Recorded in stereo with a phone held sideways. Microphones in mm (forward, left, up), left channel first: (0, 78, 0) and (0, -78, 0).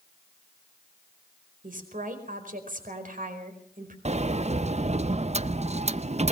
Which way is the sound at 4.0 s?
45° right (ahead or behind).